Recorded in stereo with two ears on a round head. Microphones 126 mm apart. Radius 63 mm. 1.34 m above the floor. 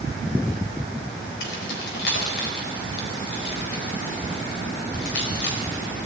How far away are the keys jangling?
About 4 m.